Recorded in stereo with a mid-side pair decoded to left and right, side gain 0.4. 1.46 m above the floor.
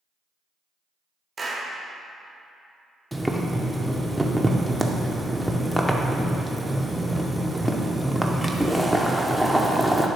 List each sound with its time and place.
1.4 s a clap: 35° right, 1.0 m
3.1 s boiling: 10° right, 0.7 m